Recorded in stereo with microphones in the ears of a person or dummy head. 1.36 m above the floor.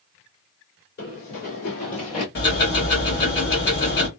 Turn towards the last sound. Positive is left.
turn(degrees=60)  # may be behind; listen again after turning